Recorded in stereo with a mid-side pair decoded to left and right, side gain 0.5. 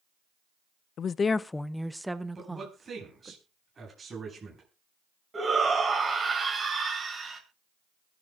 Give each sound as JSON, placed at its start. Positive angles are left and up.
{"t": 1.0, "sound": "a woman speaking", "azimuth_deg": 55, "distance_m": 0.6}
{"t": 2.4, "sound": "a man speaking", "azimuth_deg": -30, "distance_m": 9.0}
{"t": 5.3, "sound": "a shout", "azimuth_deg": -30, "distance_m": 7.0}